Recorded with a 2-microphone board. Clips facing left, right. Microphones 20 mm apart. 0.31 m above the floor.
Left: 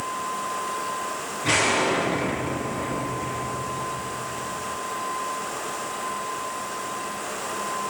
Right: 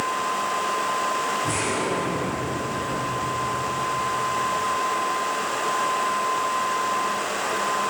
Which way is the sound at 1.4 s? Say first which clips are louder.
Left 3 dB; 80° left.